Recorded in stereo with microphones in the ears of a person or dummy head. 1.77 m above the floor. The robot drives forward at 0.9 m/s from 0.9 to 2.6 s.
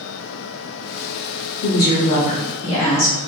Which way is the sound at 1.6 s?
50° left (ahead or behind).